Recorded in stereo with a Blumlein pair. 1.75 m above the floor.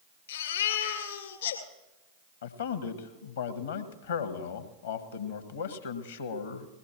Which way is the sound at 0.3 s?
60° left.